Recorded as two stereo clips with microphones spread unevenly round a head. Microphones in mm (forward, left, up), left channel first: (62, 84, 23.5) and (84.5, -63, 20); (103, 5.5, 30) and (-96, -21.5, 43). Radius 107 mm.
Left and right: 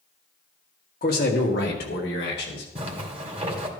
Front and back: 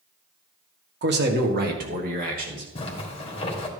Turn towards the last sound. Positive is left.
turn(degrees=-50)